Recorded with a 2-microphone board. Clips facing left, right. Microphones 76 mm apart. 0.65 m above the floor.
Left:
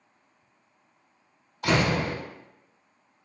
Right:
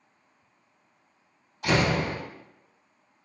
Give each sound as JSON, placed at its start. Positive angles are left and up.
{"t": 1.6, "sound": "a door slam", "side_deg": 75, "distance_m": 1.3}